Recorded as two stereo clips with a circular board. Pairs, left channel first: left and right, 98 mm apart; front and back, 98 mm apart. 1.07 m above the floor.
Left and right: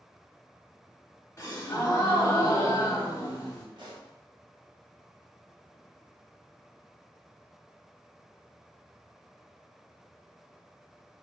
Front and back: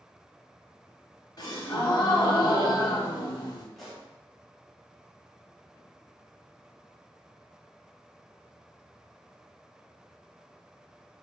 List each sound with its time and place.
1.4 s a gasp: 35° left, 0.9 m
3.8 s a pop: 90° right, 1.1 m